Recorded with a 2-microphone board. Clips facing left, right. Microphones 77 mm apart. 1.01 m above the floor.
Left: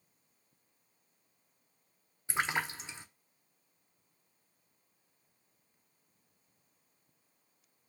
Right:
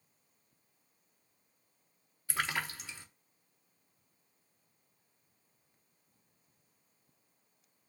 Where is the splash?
25° left (ahead or behind), 0.6 m.